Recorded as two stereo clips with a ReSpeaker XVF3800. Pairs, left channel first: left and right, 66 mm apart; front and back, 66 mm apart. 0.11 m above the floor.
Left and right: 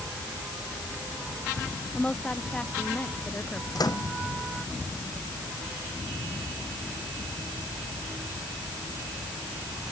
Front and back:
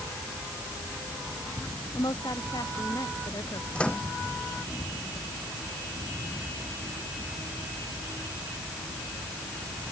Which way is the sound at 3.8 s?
75° left.